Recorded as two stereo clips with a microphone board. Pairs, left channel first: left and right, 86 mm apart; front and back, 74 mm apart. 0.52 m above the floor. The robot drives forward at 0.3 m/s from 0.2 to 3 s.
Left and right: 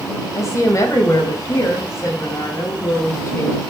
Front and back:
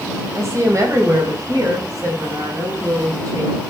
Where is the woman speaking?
135° left, 2.5 m; by 3.6 s 145° left, 3 m.